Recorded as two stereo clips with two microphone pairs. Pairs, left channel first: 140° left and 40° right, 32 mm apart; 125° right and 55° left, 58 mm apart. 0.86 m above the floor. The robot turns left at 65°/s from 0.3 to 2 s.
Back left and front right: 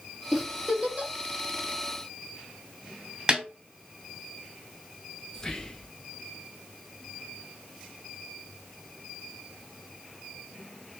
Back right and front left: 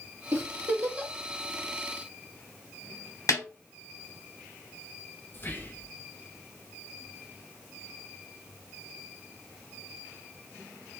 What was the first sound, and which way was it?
A giggle, 35° left.